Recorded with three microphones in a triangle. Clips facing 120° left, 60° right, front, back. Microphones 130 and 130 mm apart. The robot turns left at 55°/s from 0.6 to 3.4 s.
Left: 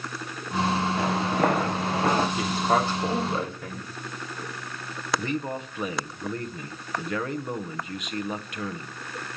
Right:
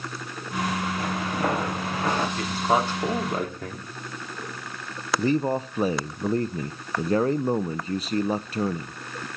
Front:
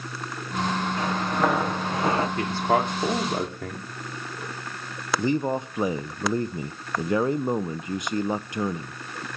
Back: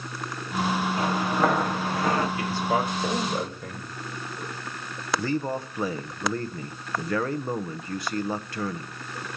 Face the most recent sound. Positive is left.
turn(degrees=-55)